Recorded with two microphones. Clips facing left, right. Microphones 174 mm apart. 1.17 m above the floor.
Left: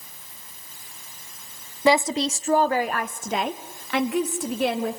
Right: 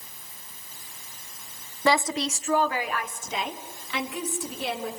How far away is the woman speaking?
About 0.7 m.